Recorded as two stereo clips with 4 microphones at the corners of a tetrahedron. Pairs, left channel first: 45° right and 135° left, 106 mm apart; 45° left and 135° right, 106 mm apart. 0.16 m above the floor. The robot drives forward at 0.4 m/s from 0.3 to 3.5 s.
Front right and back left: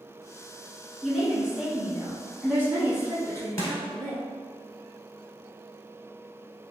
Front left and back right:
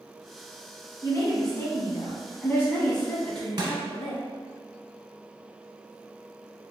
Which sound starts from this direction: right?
Crushing, at 3.6 s.